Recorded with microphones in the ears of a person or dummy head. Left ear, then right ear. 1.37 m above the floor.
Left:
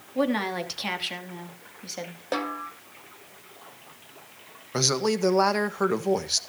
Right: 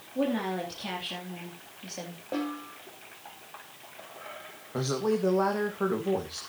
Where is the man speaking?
80° left, 1.8 m.